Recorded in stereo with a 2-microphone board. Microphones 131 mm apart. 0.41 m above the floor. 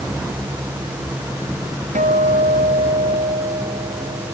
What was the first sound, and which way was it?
A guitar, 85° right.